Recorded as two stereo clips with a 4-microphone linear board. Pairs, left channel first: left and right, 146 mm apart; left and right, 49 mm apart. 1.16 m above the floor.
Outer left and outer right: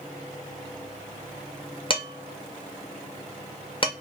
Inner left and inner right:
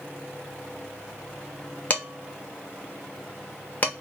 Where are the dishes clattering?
35° left (ahead or behind), 0.7 m.